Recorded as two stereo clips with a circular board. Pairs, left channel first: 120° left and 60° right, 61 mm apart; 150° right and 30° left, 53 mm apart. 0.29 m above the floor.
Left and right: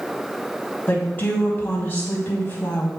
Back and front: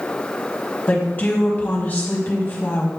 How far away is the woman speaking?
About 2 m.